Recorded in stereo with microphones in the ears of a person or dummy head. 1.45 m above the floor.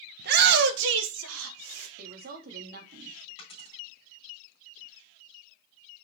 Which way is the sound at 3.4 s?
40° left (ahead or behind).